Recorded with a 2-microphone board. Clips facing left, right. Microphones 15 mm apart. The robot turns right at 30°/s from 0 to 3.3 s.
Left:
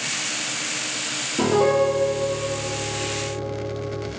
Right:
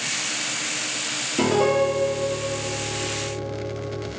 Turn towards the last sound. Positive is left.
turn(degrees=-50)